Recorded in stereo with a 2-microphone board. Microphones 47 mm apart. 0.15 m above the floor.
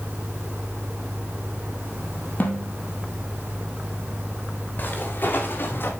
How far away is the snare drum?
About 2.5 m.